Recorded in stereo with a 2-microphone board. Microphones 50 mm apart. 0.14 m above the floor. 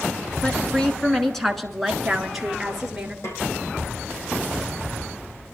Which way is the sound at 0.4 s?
20° left (ahead or behind).